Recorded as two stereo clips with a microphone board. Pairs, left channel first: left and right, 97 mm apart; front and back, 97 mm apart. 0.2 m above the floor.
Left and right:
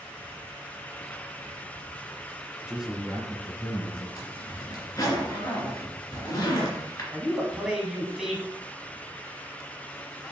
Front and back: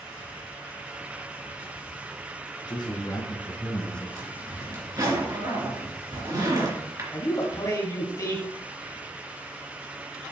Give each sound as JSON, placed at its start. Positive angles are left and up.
{"t": 2.7, "sound": "a man speaking", "azimuth_deg": -5, "distance_m": 1.9}
{"t": 4.2, "sound": "a zipper", "azimuth_deg": 135, "distance_m": 2.5}
{"t": 7.1, "sound": "a man speaking", "azimuth_deg": -5, "distance_m": 1.8}